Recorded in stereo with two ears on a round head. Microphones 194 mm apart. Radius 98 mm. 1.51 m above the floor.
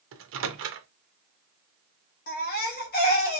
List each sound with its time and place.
0.1 s a microwave: 65° right (ahead or behind), 0.6 m
2.3 s a baby crying: 45° left (ahead or behind), 1.1 m